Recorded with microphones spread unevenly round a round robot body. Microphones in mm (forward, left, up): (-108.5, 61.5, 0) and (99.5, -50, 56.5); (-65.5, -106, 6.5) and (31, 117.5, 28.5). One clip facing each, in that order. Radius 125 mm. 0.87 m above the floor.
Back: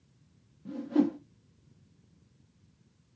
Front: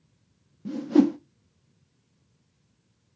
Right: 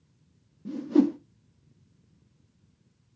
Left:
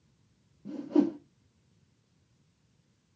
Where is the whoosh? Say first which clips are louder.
Front 7 dB, right 4 dB; 50° right, 0.5 m.